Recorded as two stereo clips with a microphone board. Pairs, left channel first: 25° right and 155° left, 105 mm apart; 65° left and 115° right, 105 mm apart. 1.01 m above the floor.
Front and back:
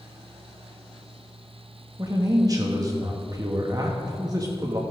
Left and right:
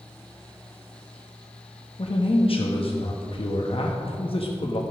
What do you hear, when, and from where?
2.0 s a man speaking: 100° left, 1.0 m